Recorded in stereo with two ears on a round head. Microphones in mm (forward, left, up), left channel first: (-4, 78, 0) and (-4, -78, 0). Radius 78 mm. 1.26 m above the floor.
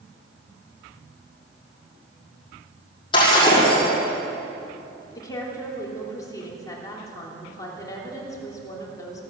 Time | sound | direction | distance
3.1 | breaking glass | 30° left (ahead or behind) | 6 m
5.2 | a woman speaking | 20° left (ahead or behind) | 3 m